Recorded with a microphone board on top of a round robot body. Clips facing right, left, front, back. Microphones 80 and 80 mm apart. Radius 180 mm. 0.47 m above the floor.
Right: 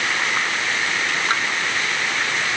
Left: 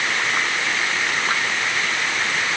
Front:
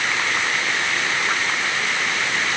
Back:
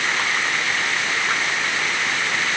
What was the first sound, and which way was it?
Only background noise.